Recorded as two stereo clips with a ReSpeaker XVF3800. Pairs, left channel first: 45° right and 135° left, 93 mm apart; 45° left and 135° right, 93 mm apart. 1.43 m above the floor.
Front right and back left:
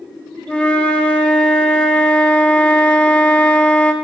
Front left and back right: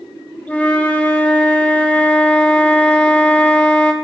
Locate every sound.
0.5 s a flute: 10° left, 0.9 m